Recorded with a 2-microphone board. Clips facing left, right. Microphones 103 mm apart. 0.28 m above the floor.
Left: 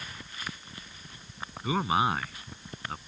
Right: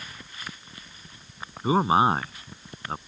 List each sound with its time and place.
1.6 s a man speaking: 35° right (ahead or behind)